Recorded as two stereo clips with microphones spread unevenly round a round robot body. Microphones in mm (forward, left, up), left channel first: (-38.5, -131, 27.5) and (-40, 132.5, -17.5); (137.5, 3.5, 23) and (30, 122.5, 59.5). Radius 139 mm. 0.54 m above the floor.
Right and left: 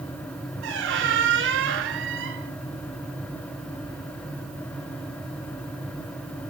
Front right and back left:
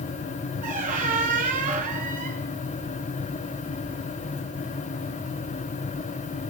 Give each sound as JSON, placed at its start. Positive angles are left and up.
{"t": 0.6, "sound": "a squeak", "azimuth_deg": 130, "distance_m": 0.8}